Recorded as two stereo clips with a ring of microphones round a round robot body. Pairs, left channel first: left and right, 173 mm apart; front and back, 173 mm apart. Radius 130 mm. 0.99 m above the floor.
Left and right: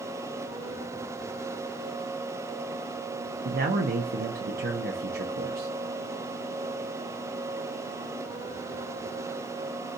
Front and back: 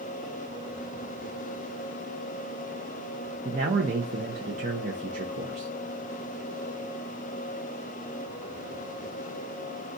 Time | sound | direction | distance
3.5 | a man speaking | 130° right | 0.6 m